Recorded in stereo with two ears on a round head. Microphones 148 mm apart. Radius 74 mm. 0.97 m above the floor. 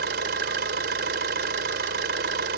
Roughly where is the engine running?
Right.